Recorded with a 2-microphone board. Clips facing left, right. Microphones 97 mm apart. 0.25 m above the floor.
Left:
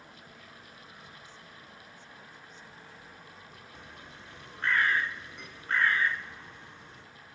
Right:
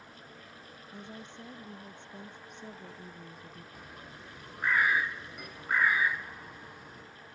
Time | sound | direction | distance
0.9 | a woman speaking | 85° right | ?
3.7 | a bird | 10° right (ahead or behind) | ?